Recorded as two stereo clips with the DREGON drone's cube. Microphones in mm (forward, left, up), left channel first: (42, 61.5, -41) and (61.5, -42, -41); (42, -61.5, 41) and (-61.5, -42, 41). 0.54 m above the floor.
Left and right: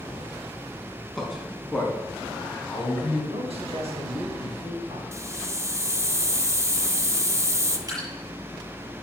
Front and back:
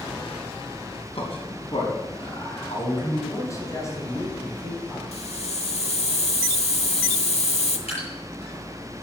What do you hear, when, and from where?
1.1 s a man speaking: 10° left, 5 m; by 3.2 s 25° left, 5.5 m
3.3 s a man speaking: 70° right, 4.5 m
5.1 s a hiss: 15° right, 1.2 m
7.9 s dripping: 25° right, 6.5 m